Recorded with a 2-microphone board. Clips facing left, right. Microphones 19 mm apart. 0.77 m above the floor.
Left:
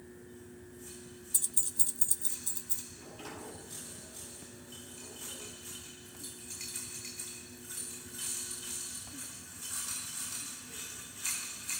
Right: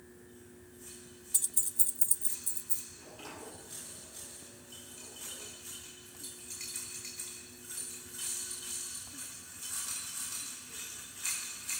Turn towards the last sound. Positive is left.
turn(degrees=-10)  # may be behind; listen again after turning